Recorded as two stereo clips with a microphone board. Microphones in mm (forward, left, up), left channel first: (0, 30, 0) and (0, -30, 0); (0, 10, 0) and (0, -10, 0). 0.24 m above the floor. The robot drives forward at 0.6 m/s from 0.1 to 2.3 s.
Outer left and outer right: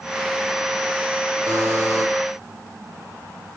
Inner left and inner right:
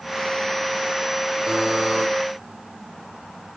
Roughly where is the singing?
No singing in this recording.